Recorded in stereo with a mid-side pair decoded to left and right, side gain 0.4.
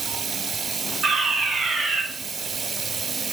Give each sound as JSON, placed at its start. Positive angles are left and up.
{"t": 0.0, "sound": "running water", "azimuth_deg": -50, "distance_m": 1.2}
{"t": 1.0, "sound": "a fire alarm", "azimuth_deg": -65, "distance_m": 4.5}